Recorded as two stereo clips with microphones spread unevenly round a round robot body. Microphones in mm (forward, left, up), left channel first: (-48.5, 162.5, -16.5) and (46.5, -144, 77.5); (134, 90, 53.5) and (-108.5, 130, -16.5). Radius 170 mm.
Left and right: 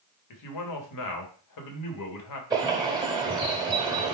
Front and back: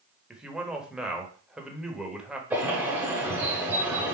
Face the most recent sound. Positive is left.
turn(degrees=-80)